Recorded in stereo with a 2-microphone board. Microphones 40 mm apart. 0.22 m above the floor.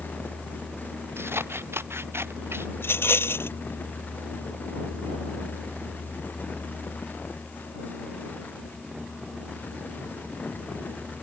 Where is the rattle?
70° left (ahead or behind).